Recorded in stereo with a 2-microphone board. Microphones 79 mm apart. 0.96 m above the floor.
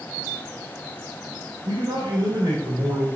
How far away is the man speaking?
About 3 m.